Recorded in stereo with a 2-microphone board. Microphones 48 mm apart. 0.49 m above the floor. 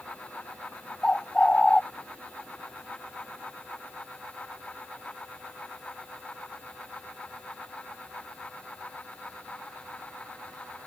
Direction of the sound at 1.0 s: 15° left (ahead or behind).